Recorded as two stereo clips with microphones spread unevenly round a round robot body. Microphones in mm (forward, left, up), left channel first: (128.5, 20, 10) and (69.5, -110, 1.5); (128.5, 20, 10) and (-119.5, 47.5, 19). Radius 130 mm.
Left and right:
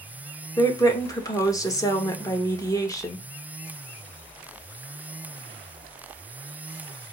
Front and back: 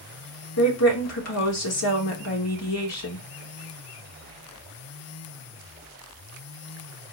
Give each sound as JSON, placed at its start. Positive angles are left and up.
{"t": 0.6, "sound": "a woman speaking", "azimuth_deg": 0, "distance_m": 1.2}